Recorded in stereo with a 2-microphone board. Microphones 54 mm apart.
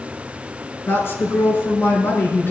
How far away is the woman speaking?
About 5 m.